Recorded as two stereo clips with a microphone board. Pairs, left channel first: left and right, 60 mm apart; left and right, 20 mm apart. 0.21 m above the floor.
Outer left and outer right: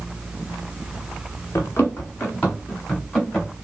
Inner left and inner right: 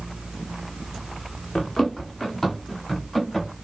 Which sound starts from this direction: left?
Running footsteps, at 1.6 s.